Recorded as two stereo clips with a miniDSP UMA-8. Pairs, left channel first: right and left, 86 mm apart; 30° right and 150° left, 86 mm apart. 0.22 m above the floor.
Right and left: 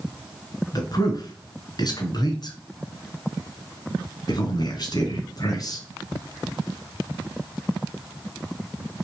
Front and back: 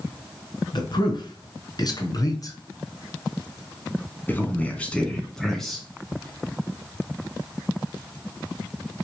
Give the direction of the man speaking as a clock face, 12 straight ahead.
2 o'clock.